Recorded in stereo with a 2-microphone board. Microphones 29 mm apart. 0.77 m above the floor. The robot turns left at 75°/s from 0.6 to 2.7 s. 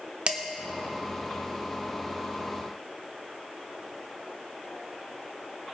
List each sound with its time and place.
0.3 s dishes clattering: 45° right (ahead or behind), 1.1 m